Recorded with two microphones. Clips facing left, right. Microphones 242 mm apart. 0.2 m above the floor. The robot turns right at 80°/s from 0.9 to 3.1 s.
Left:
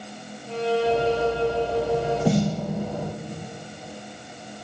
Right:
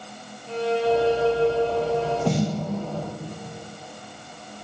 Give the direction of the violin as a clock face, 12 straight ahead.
6 o'clock.